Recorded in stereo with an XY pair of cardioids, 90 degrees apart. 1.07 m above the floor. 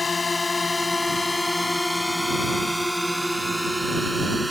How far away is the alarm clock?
I don't hear an alarm clock.